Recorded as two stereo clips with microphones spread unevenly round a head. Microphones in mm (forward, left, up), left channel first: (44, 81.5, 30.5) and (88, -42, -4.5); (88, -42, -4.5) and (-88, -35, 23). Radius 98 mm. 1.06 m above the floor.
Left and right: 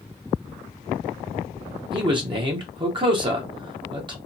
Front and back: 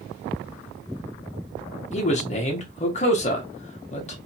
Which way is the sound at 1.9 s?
40° right.